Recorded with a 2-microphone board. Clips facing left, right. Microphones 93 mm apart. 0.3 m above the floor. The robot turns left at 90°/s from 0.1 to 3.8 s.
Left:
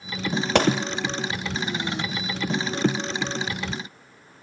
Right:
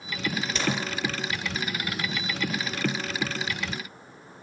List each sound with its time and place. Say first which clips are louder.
0.6 s a gunshot: left 11 dB; 60° left (ahead or behind), 2.0 m; by 0.8 s 45° left (ahead or behind), 2.0 m